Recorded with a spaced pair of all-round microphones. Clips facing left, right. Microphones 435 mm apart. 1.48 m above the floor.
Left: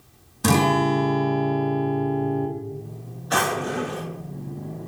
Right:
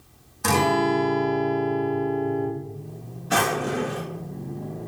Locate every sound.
0.4 s a guitar: 55° left (ahead or behind), 0.7 m
3.3 s a drawer: 45° right (ahead or behind), 1.1 m